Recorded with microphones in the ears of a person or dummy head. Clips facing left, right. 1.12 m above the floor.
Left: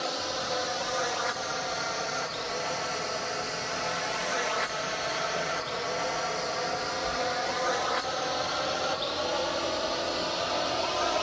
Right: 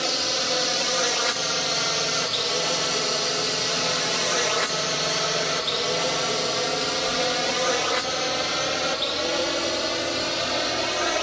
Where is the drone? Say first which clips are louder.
Right 4 dB; 40° right (ahead or behind); by 11.2 s 30° right (ahead or behind).